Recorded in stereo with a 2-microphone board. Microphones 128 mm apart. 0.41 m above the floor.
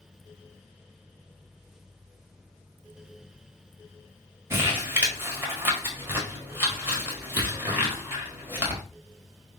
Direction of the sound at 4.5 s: 20° right (ahead or behind).